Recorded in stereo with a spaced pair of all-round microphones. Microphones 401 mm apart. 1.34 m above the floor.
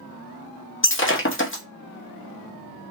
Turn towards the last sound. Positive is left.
turn(degrees=30)  # may be behind; listen again after turning